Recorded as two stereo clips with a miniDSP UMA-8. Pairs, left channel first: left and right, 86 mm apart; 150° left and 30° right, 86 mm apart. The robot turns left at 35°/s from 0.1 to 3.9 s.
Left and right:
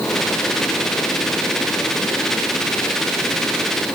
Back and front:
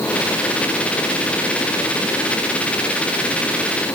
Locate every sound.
Only background noise.